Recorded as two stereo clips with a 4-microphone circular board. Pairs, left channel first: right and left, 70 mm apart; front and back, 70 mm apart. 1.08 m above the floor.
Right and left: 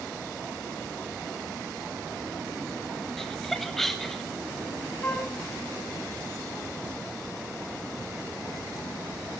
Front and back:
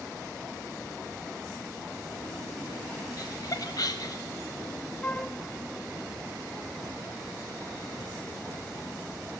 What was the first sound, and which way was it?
Laughter, 5° right.